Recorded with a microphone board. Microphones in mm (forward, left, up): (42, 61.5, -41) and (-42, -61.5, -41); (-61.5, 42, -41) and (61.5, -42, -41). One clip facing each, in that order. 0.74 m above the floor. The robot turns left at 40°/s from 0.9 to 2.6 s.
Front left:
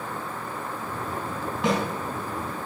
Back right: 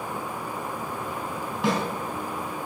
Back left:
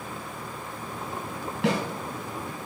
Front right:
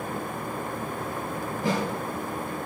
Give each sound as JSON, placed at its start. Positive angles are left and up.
{"t": 1.6, "sound": "a snare drum", "azimuth_deg": 145, "distance_m": 4.0}